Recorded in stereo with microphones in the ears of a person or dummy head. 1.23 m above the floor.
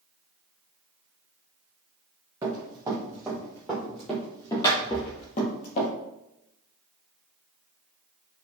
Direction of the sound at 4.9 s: 65° left (ahead or behind).